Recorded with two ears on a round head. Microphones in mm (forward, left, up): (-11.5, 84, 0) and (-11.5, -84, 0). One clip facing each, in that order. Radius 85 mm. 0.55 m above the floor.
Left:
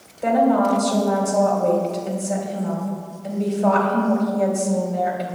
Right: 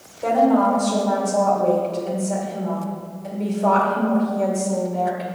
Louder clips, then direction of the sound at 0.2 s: Even; 10° left (ahead or behind).